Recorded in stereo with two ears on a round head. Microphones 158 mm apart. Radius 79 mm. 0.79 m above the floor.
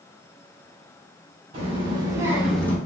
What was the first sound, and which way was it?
A child speaking, 35° right (ahead or behind).